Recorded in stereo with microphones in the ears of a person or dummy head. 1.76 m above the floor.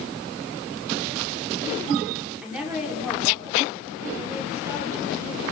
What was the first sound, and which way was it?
A woman speaking, 10° right (ahead or behind).